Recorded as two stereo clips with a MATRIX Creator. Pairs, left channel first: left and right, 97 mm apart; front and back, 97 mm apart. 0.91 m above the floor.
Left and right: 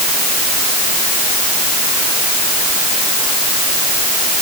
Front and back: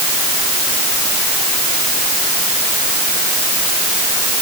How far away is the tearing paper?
I don't hear tearing paper.